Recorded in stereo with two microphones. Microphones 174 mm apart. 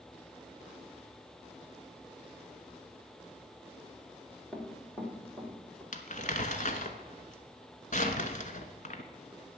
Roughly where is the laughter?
No laughter in this recording.